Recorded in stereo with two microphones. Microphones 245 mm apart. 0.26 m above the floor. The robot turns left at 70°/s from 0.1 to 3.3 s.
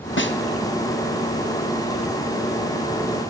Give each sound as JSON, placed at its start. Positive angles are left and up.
{"t": 0.2, "sound": "a snare drum", "side_deg": 50, "distance_m": 2.0}